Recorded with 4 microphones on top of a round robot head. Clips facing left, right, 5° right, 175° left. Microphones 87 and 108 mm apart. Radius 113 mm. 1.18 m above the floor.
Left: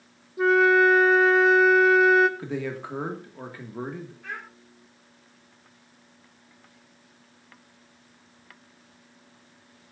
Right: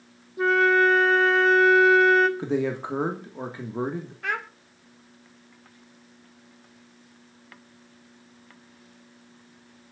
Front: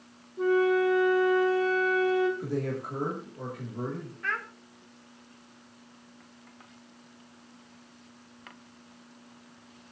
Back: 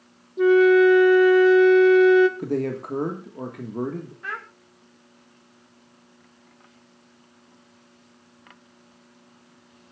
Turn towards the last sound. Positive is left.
turn(degrees=-105)